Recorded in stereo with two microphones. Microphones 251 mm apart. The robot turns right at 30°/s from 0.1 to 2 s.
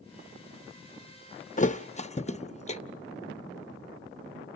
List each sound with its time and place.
1.6 s a thud: 30° left (ahead or behind), 0.6 m; by 2.8 s 25° left (ahead or behind), 0.6 m